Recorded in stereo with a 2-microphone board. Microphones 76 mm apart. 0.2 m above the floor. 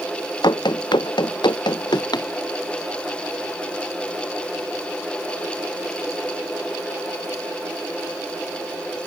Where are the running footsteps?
70° left (ahead or behind); by 2.3 s 65° left (ahead or behind).